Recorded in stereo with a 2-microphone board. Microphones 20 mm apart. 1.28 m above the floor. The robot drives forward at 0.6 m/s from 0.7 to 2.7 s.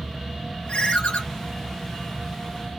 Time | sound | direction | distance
0.7 | a ringtone | 55° left (ahead or behind) | 1.6 m